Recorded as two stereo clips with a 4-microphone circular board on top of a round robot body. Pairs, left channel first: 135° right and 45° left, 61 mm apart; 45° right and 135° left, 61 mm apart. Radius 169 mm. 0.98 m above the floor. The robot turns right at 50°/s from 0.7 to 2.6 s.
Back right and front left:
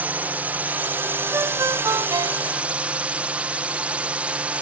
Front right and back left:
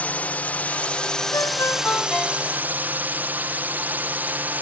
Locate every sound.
0.0 s a drone: 5° left; by 4.6 s 100° left
1.3 s a ringtone: 10° right; by 2.8 s 55° left